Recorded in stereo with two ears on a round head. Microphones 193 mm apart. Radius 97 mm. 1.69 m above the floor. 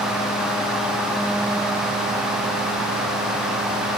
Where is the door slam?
No door slam in this recording.